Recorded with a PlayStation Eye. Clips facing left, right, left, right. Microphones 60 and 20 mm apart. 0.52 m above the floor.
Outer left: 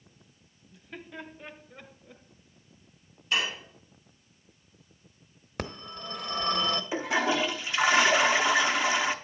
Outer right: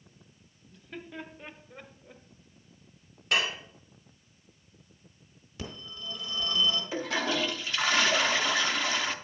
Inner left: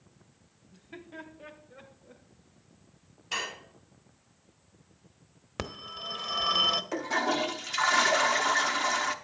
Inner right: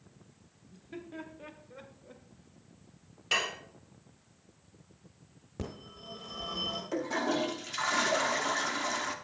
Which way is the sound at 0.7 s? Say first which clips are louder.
Outer right 1 dB, inner right 1 dB; 5° left (ahead or behind).